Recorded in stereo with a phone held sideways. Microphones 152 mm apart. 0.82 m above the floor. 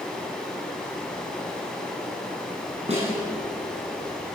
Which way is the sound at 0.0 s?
5° left (ahead or behind).